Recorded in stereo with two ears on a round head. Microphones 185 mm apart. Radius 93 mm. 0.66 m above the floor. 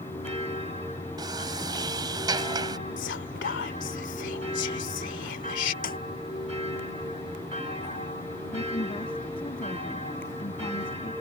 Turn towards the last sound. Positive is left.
turn(degrees=25)  # may be behind; listen again after turning